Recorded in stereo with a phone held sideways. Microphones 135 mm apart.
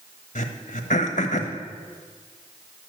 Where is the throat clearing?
70° left (ahead or behind), 1.4 m.